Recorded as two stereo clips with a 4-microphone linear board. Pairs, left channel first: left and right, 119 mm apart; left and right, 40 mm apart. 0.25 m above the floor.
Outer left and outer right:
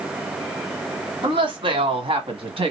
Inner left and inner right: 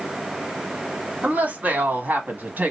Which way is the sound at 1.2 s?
45° right (ahead or behind).